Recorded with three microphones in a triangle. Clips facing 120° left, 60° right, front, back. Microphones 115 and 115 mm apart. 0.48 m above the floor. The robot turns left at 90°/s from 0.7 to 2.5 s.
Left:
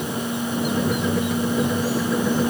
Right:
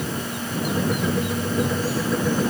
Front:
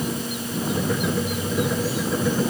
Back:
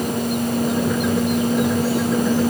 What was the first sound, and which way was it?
Only background noise.